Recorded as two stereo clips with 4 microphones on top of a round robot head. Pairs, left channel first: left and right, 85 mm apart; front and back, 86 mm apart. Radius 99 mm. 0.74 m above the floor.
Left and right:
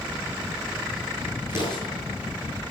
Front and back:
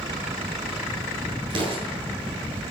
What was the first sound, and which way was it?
An explosion, 155° right.